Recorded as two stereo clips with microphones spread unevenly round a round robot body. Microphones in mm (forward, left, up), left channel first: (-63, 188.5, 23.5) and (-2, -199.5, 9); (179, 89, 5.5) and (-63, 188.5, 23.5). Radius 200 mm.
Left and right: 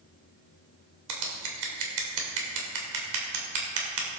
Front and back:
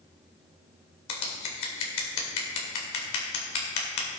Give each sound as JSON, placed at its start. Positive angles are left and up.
{"t": 1.1, "sound": "scissors", "azimuth_deg": -35, "distance_m": 2.0}